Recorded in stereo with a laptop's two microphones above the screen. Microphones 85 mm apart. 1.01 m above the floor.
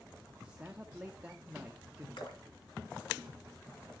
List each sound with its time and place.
0.4 s a man speaking: 15° right (ahead or behind), 1.0 m
2.2 s dripping: 70° left (ahead or behind), 2 m